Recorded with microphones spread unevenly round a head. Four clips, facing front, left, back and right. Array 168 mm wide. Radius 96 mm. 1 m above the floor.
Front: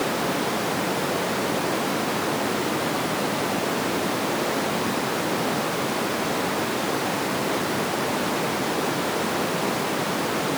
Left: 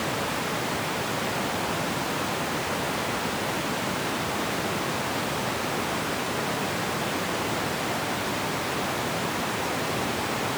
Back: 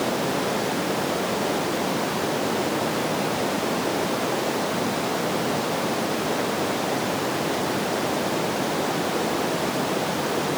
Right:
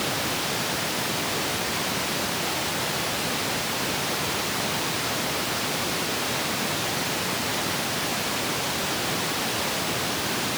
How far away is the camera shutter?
I don't hear a camera shutter.